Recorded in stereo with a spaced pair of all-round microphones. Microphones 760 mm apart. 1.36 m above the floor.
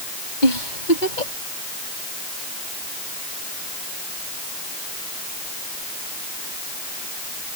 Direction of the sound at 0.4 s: 75° left (ahead or behind).